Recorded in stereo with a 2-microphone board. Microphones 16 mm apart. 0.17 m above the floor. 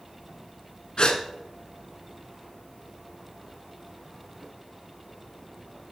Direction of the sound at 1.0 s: 45° left (ahead or behind).